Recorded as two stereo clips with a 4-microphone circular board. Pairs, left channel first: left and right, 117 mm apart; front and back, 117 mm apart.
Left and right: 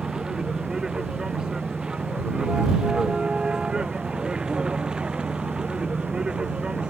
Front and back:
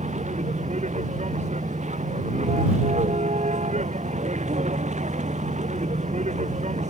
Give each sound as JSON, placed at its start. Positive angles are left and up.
{"t": 0.0, "sound": "a vehicle", "azimuth_deg": -175}